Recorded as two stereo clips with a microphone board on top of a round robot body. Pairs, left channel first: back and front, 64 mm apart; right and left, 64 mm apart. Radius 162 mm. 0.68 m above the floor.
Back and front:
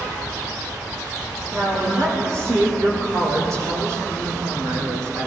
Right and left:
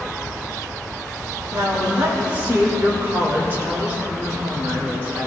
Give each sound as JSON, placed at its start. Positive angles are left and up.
{"t": 1.5, "sound": "a woman speaking", "azimuth_deg": 30, "distance_m": 4.0}